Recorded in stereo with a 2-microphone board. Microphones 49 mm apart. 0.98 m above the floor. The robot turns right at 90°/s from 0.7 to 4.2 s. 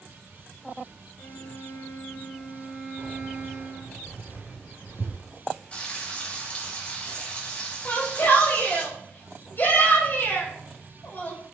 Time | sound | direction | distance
1.2 | a violin | 80° left | 2 m
3.0 | keys jangling | 35° right (ahead or behind) | 5 m
5.7 | frying | 30° left (ahead or behind) | 4 m
7.8 | a shout | 45° left (ahead or behind) | 4 m